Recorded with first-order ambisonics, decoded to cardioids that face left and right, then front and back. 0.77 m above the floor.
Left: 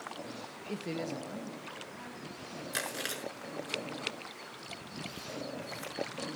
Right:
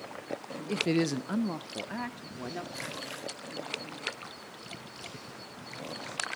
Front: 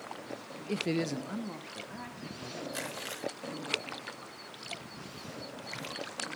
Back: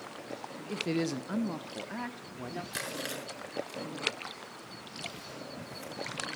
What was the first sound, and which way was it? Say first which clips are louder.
A woman speaking: right 9 dB, even; 40° right.